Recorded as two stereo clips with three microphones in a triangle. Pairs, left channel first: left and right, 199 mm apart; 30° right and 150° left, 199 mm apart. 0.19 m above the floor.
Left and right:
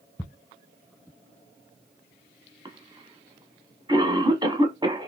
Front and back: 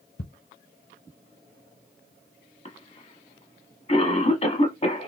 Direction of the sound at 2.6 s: 40° right.